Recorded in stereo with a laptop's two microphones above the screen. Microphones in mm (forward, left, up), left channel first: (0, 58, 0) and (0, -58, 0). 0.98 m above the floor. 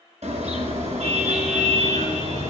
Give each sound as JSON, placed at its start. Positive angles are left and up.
{"t": 0.2, "sound": "a car horn", "side_deg": -85, "distance_m": 6.5}